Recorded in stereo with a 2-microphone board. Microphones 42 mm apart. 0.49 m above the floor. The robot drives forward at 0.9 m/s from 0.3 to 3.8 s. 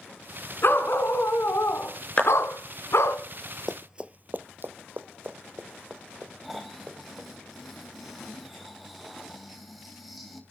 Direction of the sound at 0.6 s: 50° left (ahead or behind).